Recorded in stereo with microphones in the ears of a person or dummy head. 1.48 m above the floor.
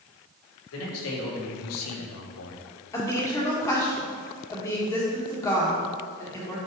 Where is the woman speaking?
15° left (ahead or behind), 1.5 m.